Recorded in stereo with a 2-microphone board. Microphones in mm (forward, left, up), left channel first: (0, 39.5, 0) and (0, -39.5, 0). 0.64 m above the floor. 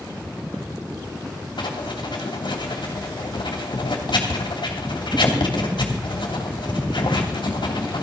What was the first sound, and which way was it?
Writing, 75° left (ahead or behind).